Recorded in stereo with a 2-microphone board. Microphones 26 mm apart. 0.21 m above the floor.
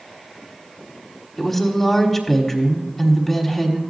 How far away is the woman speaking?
About 1.2 m.